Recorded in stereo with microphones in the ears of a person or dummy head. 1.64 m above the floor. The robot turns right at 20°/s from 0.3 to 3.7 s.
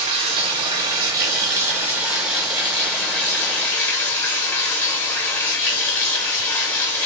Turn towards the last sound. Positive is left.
turn(degrees=20)